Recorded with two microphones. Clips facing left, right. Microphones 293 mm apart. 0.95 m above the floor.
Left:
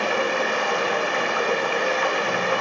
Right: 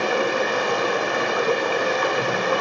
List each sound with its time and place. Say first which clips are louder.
0.0 s running water: right 2 dB; 50° right (ahead or behind), 0.7 m